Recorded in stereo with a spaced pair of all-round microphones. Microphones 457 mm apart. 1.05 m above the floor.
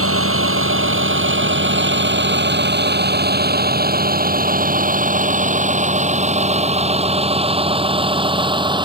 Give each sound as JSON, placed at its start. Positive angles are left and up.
{"t": 0.0, "sound": "a vehicle", "side_deg": -25}